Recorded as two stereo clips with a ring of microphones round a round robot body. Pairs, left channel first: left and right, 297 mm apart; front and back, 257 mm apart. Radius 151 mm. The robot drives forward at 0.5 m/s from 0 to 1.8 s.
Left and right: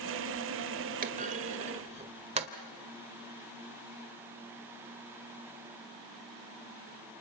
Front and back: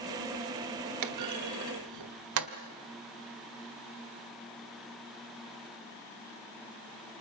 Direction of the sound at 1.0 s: 150° right.